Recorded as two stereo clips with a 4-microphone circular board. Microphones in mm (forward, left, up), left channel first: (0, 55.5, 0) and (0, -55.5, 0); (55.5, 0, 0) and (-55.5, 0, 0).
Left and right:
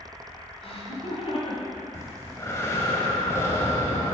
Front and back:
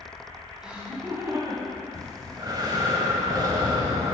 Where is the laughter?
95° left, 1.7 m; by 2.8 s 145° left, 2.5 m.